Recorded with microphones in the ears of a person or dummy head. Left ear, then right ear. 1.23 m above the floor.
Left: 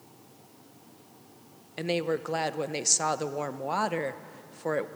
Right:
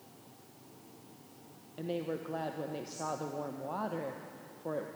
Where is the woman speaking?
65° left (ahead or behind), 0.7 m.